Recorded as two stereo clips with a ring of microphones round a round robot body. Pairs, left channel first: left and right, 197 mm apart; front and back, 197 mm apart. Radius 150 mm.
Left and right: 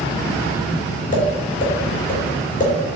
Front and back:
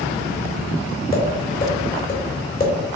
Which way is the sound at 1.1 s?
45° left.